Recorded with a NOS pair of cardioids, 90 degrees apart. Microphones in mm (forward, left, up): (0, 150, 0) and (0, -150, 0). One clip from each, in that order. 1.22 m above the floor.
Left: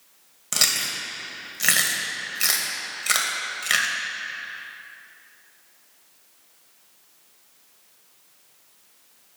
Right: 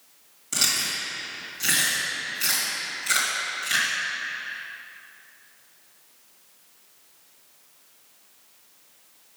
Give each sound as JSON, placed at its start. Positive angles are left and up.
{"t": 0.5, "sound": "chewing", "azimuth_deg": 50, "distance_m": 1.5}